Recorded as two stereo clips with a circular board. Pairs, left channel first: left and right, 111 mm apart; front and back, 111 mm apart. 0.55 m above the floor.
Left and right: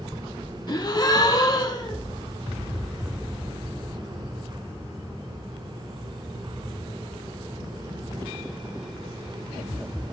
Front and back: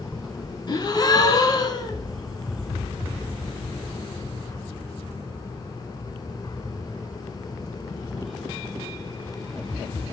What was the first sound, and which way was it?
A gasp, 45° left.